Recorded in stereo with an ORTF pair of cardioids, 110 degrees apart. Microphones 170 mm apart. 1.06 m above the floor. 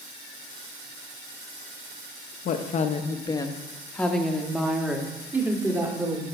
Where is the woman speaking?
60° left, 1.2 m; by 6.2 s 15° right, 3 m.